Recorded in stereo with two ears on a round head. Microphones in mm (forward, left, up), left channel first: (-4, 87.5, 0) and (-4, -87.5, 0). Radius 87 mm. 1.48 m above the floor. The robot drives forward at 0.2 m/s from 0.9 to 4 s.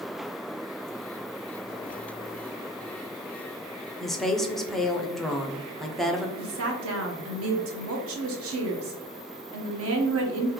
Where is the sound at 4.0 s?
Centre (ahead or behind), 0.6 m.